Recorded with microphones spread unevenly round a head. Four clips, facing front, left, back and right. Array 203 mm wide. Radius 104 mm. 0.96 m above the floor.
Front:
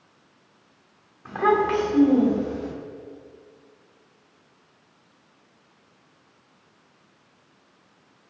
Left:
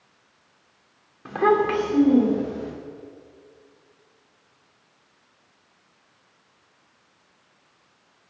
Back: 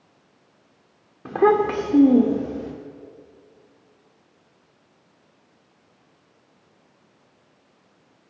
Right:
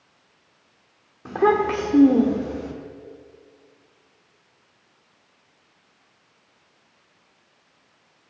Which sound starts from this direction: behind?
A child speaking, at 1.2 s.